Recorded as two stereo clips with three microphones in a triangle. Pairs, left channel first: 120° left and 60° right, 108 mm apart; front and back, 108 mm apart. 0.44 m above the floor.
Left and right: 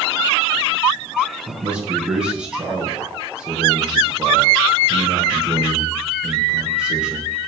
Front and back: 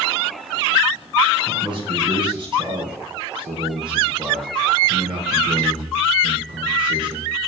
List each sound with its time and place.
1.5 s a man speaking: 140° right, 5.5 m